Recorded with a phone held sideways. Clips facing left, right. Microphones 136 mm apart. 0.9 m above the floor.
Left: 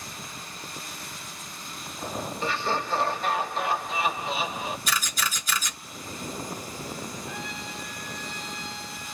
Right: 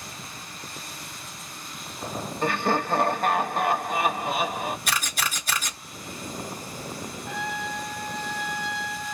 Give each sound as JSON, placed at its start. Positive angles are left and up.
{"t": 2.4, "sound": "laughter", "side_deg": -50, "distance_m": 0.8}
{"t": 4.9, "sound": "a camera shutter", "side_deg": -60, "distance_m": 1.6}
{"t": 7.3, "sound": "a trumpet", "side_deg": -75, "distance_m": 0.9}